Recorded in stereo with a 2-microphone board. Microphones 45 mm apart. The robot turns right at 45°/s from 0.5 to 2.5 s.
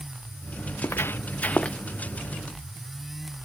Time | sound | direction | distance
0.7 | footsteps | 75° left (ahead or behind) | ?